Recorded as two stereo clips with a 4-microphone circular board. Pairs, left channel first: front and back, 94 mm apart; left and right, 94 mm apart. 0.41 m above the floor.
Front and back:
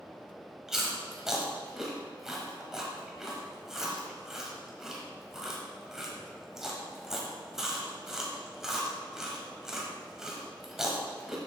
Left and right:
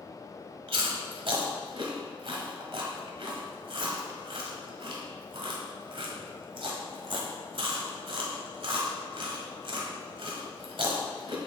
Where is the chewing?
95° right, 1.5 m.